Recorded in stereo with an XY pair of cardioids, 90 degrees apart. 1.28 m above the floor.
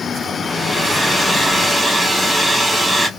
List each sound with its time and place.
0.4 s a hair dryer: 5° left, 2.0 m